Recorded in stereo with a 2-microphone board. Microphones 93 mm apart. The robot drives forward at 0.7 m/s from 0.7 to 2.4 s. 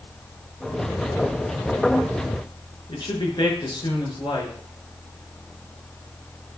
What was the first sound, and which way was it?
A man speaking, 55° left (ahead or behind).